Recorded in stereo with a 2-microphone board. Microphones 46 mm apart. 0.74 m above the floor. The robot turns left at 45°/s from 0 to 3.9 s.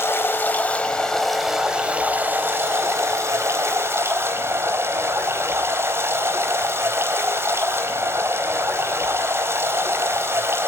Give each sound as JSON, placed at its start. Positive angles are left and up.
{"t": 0.0, "sound": "running water", "azimuth_deg": 60, "distance_m": 4.0}